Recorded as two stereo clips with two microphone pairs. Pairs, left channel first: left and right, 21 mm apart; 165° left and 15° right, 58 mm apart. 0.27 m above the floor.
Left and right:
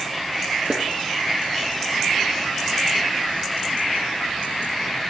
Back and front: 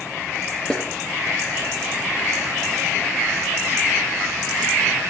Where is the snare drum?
125° right, 3.5 m.